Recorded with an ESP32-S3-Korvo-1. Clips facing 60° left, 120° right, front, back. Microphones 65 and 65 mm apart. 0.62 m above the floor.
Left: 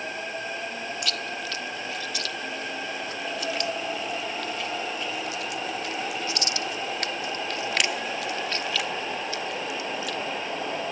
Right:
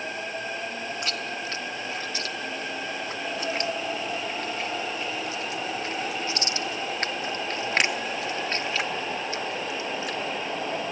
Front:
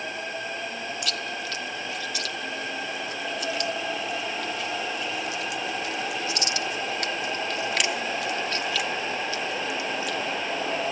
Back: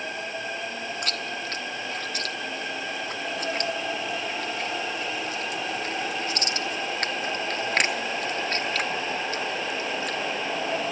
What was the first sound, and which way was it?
Chewing, 165° right.